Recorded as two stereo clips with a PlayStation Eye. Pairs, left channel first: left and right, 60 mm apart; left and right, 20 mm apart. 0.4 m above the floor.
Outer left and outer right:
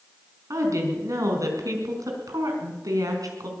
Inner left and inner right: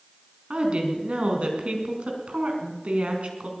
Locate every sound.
0.5 s a woman speaking: 60° right (ahead or behind), 4.5 m; by 3.5 s 75° right (ahead or behind), 4.5 m